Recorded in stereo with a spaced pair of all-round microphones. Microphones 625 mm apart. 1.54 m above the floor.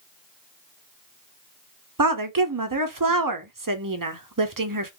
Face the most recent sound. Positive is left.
turn(degrees=-35)  # may be behind; listen again after turning